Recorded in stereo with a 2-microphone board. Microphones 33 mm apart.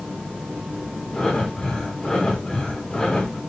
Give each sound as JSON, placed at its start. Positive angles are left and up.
{"t": 1.1, "sound": "breathing", "side_deg": 15, "distance_m": 4.5}